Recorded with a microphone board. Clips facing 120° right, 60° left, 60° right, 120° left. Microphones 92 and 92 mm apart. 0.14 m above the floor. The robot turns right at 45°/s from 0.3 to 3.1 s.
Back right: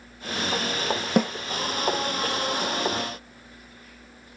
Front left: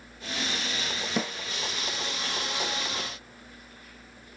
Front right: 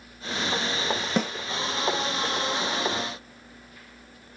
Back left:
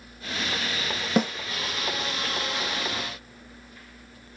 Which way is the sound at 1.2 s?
155° right.